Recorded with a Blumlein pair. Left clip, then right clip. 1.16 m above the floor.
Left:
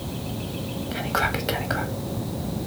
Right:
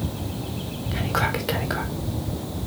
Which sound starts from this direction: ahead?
Whispering, at 0.9 s.